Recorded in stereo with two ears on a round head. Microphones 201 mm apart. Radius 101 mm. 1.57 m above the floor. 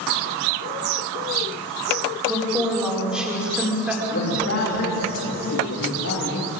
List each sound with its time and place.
2.2 s a woman speaking: 5° right (ahead or behind), 5 m
4.1 s a man speaking: 60° left (ahead or behind), 3.5 m